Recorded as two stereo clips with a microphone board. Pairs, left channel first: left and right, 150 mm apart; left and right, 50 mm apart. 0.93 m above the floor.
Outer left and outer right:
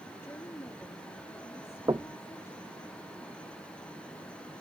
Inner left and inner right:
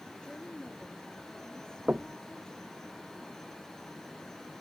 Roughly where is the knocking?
Right.